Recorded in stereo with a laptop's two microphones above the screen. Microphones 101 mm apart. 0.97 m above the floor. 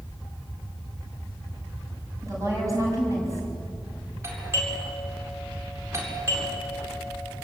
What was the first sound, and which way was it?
A woman speaking, 30° right (ahead or behind).